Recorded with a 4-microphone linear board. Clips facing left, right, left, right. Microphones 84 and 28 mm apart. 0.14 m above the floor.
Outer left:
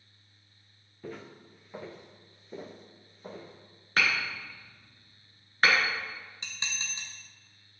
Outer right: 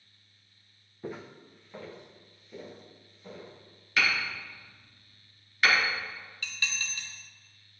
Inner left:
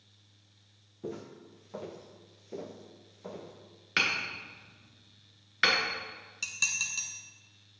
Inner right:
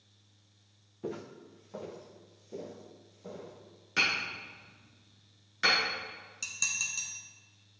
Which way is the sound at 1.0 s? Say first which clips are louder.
Outer right 2 dB, inner right 1 dB; 20° right (ahead or behind).